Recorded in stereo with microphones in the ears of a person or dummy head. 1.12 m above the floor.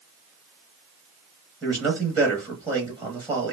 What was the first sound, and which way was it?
A man speaking, 15° right (ahead or behind).